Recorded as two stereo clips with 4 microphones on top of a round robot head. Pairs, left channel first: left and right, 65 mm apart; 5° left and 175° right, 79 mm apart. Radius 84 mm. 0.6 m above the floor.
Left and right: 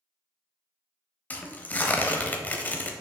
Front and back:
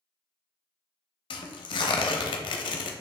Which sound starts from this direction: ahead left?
Tearing paper, at 1.3 s.